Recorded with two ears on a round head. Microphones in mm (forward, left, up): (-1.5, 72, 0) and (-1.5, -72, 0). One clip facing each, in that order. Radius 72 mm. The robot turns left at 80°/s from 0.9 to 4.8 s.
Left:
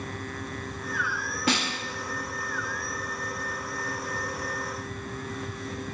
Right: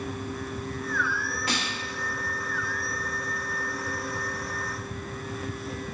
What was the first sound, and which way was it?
A snare drum, 55° left (ahead or behind).